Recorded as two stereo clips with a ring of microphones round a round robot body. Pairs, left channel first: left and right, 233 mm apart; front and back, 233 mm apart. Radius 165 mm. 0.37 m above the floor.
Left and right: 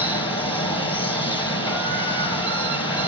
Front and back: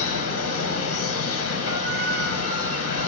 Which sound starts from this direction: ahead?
Running water, at 0.0 s.